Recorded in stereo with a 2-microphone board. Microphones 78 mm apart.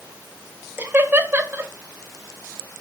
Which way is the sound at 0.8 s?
25° right (ahead or behind).